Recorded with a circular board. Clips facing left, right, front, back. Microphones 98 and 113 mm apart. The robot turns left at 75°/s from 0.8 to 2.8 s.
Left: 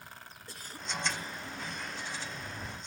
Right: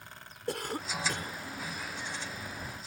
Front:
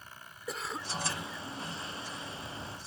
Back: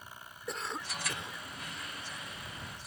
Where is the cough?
90° right; by 1.4 s 135° right.